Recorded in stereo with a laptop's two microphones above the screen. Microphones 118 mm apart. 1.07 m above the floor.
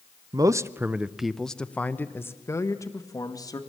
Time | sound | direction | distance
0.3 | a man speaking | 35° right (ahead or behind) | 0.7 m